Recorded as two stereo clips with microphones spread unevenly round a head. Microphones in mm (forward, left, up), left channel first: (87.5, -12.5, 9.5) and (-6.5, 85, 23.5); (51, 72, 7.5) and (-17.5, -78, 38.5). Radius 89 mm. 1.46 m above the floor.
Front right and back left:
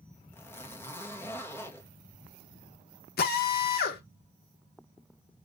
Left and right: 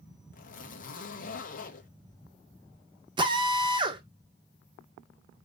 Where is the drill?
50° right, 1.9 m.